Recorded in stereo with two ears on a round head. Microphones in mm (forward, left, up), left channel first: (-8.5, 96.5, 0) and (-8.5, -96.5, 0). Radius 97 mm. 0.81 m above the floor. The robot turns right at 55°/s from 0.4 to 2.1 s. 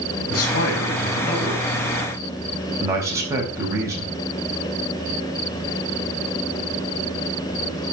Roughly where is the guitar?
No guitar in this recording.